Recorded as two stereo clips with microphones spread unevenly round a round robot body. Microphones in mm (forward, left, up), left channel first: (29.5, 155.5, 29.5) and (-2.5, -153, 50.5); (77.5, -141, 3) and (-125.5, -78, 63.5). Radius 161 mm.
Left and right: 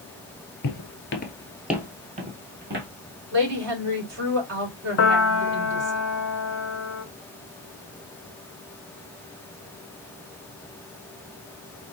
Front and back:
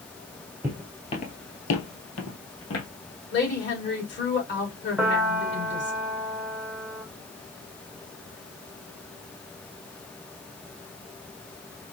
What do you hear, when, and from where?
0.6 s footsteps: 100° left, 1.3 m; by 2.9 s 40° right, 2.5 m
3.3 s a woman speaking: 50° right, 3.5 m
5.0 s a piano: 60° left, 1.0 m